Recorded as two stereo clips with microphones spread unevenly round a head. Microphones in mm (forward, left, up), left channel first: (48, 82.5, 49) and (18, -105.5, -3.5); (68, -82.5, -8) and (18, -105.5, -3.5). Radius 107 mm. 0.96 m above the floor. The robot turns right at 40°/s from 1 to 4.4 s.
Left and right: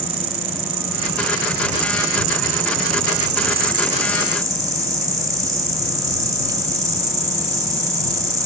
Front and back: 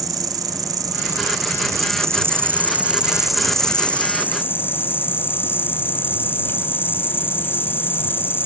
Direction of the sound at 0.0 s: 160° right.